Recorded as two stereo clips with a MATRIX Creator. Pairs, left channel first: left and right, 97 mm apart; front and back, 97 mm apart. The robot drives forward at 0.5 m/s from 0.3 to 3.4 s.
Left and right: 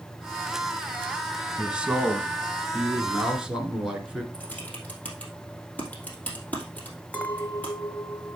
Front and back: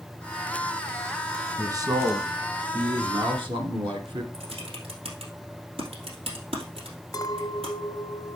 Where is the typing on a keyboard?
165° left, 2.5 m.